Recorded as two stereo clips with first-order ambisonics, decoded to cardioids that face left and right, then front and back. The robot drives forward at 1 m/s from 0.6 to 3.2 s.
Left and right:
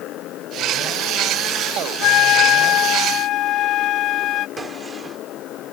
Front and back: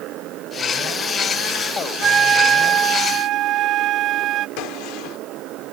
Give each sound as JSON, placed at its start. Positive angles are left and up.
{"t": 0.0, "sound": "a motorcycle", "azimuth_deg": 135}
{"t": 2.0, "sound": "a flute", "azimuth_deg": 115}
{"t": 4.6, "sound": "a gunshot", "azimuth_deg": -15}